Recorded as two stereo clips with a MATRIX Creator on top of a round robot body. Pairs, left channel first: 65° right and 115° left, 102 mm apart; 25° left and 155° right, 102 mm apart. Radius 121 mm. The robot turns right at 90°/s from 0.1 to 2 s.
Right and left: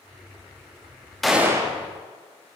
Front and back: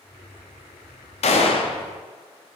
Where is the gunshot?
20° left, 0.7 m; by 1.8 s 70° left, 0.7 m.